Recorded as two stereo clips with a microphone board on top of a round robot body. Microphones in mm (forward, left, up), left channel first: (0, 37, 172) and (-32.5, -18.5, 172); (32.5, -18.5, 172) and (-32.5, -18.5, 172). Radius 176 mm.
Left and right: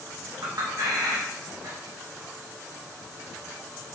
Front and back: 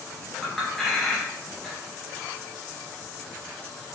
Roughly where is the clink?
Right.